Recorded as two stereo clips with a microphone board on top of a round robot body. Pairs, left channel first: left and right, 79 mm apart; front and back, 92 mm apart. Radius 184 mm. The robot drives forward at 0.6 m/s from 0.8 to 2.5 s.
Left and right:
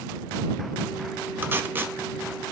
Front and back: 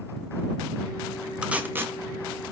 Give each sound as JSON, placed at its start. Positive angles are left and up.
{"t": 1.4, "sound": "tape being pulled", "azimuth_deg": -110, "distance_m": 1.2}